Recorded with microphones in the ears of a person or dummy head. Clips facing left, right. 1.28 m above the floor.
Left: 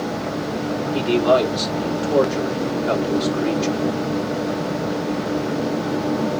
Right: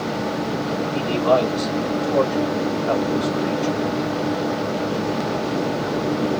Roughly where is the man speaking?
Left.